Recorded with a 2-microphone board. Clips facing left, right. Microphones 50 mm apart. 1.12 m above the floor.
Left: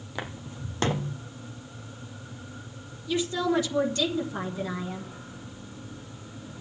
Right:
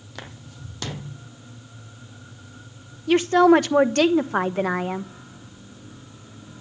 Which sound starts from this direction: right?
A woman speaking, at 3.1 s.